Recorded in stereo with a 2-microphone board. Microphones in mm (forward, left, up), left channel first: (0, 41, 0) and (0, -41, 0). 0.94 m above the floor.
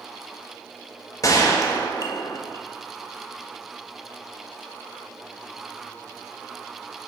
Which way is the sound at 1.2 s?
40° left (ahead or behind).